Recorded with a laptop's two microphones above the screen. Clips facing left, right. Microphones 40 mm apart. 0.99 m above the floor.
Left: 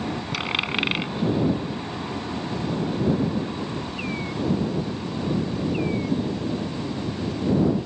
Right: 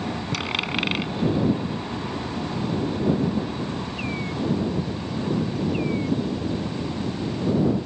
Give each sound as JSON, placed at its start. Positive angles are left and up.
{"t": 0.3, "sound": "a dropped coin", "side_deg": 10}